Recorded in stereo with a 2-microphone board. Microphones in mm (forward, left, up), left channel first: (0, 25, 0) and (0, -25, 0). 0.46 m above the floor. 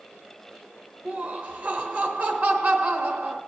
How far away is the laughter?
About 1.1 m.